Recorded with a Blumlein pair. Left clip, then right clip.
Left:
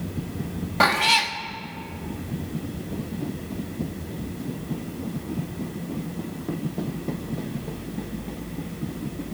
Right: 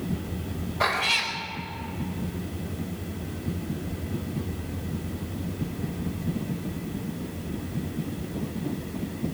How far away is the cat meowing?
About 1.5 m.